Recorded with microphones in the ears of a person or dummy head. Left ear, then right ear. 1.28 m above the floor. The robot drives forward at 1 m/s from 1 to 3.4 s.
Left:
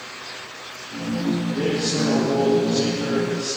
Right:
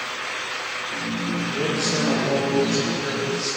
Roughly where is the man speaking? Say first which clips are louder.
Right 1 dB; right.